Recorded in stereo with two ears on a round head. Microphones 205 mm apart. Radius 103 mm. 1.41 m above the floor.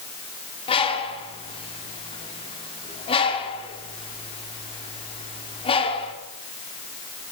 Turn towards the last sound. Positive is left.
turn(degrees=25)  # may be behind; listen again after turning